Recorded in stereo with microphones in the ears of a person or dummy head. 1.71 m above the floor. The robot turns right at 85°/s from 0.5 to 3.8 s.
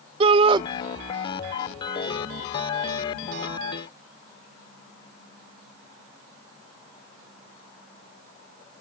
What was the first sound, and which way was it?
A shout, 30° right (ahead or behind).